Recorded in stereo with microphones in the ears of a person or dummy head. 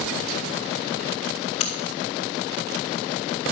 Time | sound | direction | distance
1.6 | a crack | 45° left (ahead or behind) | 2.0 m